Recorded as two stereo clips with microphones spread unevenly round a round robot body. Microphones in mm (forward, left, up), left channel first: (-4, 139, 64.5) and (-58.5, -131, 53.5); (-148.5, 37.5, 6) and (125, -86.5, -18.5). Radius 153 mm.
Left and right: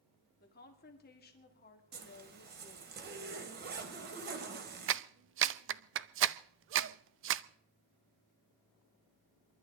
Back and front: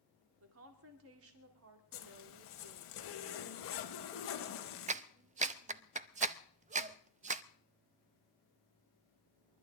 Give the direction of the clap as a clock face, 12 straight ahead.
3 o'clock.